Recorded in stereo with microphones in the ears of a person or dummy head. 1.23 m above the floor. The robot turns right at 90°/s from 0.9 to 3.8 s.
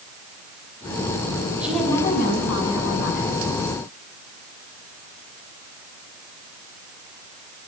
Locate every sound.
1.6 s a woman speaking: straight ahead, 9.5 m; by 3.4 s 160° left, 9.5 m